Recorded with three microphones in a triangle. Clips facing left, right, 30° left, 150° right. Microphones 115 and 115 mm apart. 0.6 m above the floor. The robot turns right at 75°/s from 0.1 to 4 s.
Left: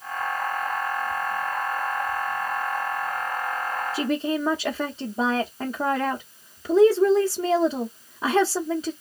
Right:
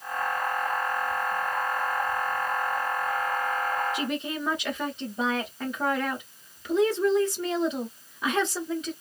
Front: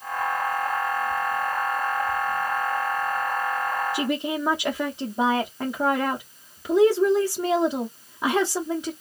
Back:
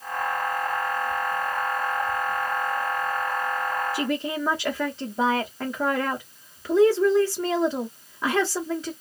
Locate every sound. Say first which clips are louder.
3.9 s a woman speaking: left 6 dB, front 1 dB; 85° left, 0.8 m; by 8.9 s 90° left, 0.8 m